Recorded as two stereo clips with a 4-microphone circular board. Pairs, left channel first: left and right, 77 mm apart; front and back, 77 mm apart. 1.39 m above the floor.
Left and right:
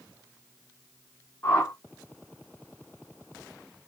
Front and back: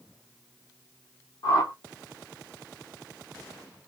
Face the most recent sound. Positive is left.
turn(degrees=25)